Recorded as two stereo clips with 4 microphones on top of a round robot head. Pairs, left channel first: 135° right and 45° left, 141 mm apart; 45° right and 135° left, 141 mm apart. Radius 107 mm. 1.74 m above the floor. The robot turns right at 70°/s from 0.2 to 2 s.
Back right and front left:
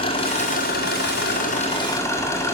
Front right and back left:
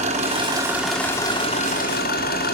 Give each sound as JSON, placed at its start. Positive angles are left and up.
{"t": 0.0, "sound": "an engine running", "azimuth_deg": 175, "distance_m": 5.0}